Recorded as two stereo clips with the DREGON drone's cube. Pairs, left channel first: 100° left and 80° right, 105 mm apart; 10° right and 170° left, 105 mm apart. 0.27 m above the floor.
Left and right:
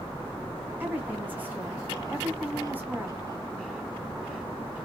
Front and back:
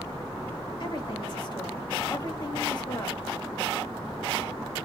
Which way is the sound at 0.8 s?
15° right.